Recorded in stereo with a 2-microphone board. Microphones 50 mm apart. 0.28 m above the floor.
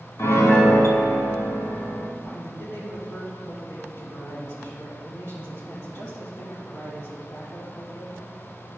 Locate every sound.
0.2 s a piano: 60° left (ahead or behind), 1.3 m
2.2 s a man speaking: 60° left (ahead or behind), 3 m